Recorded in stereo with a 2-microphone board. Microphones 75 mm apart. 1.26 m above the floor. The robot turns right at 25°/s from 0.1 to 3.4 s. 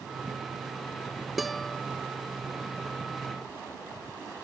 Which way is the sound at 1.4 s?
Centre (ahead or behind).